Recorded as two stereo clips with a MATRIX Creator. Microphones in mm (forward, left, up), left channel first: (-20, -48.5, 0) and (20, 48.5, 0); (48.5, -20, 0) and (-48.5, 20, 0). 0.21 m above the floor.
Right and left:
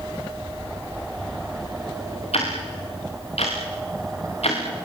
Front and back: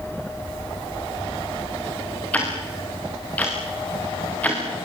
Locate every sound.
2.3 s ticking: 100° right, 6.5 m